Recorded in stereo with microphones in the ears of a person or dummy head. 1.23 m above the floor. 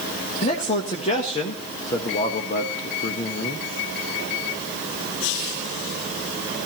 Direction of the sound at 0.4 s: 35° left (ahead or behind).